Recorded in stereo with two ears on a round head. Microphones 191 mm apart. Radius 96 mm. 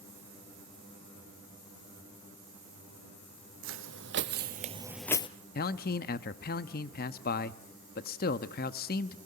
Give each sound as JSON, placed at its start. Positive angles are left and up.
{"t": 3.6, "sound": "footsteps", "side_deg": -70, "distance_m": 1.7}
{"t": 5.5, "sound": "a man speaking", "side_deg": 45, "distance_m": 0.8}